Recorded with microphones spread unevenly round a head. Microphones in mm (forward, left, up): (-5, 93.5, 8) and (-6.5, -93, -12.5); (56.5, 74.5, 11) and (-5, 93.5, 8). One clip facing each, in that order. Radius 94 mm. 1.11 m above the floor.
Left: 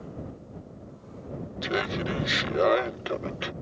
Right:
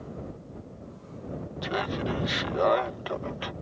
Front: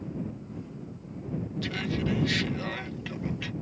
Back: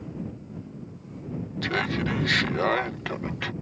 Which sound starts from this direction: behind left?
Laughter, at 1.6 s.